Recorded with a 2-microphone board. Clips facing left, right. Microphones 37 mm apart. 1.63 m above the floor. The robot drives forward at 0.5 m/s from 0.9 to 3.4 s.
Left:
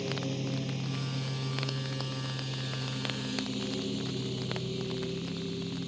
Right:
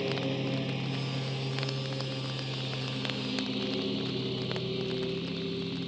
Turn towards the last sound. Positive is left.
turn(degrees=-20)  # may be behind; listen again after turning